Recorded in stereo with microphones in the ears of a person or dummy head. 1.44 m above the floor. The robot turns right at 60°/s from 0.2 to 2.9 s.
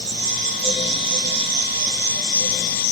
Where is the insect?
125° right, 2.5 m; by 2.9 s 35° left, 2.5 m.